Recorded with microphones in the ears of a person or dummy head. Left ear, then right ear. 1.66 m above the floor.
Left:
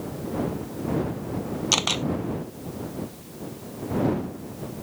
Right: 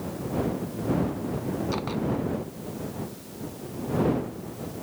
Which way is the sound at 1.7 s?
75° left (ahead or behind).